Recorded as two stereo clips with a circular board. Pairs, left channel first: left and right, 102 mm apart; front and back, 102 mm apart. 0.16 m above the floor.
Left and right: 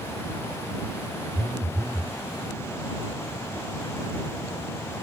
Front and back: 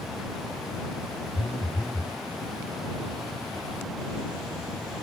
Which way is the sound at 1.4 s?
60° right.